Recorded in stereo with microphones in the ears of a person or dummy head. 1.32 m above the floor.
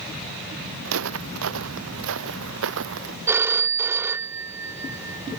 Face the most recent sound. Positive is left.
turn(degrees=-15)  # may be behind; listen again after turning